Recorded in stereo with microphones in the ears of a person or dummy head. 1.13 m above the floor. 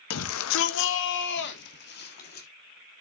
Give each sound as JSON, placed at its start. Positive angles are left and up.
{"t": 0.1, "sound": "a shout", "side_deg": 85, "distance_m": 1.1}